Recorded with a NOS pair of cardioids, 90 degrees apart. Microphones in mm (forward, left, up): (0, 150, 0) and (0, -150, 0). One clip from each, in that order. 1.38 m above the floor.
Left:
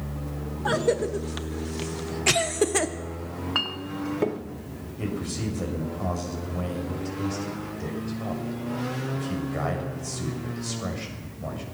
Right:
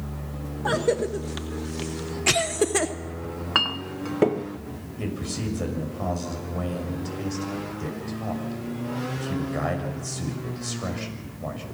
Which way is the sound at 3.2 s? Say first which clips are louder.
Right 4 dB; 30° right.